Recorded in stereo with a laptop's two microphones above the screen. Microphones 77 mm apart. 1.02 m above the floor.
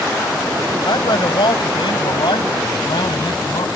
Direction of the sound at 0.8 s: 80° left.